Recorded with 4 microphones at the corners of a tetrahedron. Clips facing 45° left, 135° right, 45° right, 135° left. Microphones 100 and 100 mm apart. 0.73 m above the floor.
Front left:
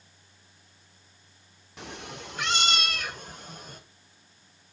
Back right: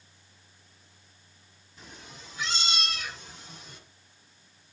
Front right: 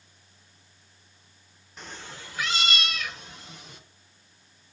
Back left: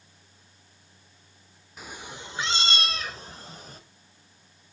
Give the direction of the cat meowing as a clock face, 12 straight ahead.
10 o'clock.